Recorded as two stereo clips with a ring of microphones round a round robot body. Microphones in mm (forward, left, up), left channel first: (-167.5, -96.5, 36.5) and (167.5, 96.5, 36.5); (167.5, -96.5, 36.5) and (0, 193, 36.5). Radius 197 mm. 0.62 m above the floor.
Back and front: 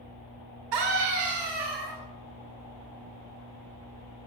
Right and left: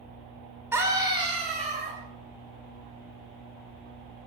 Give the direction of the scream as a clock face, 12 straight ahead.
11 o'clock.